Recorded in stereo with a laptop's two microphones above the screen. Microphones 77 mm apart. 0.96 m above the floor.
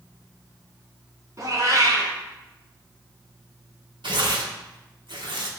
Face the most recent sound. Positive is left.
turn(degrees=-80)